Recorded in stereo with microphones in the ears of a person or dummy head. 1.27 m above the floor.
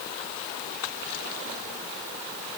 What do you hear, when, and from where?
Only background noise.